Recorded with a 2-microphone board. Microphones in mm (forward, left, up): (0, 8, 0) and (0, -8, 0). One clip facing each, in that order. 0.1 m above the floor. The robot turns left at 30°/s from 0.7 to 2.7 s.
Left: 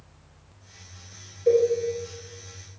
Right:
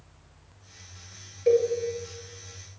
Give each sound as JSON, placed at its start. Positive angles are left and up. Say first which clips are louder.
{"t": 1.5, "sound": "a cowbell", "louder": "left 2 dB", "side_deg": -35, "distance_m": 1.3}